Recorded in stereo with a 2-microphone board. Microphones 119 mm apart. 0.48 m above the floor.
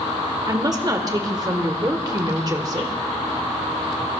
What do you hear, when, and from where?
0.5 s a woman speaking: 35° right (ahead or behind), 1.5 m